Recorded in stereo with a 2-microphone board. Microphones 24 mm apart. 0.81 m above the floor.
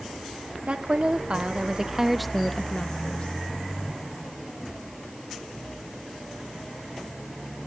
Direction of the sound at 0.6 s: 55° right (ahead or behind).